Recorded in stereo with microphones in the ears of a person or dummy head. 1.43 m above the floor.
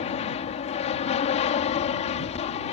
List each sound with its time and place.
0.0 s an aircraft: 35° left (ahead or behind)